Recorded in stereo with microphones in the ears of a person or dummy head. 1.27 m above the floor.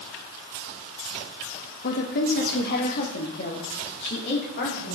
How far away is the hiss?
No hiss in this recording.